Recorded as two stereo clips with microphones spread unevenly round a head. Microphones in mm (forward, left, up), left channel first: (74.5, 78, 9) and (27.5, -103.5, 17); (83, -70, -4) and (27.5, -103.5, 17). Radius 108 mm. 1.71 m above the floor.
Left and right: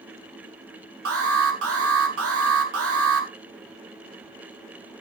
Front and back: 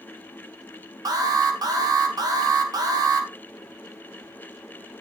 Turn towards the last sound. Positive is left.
turn(degrees=-125)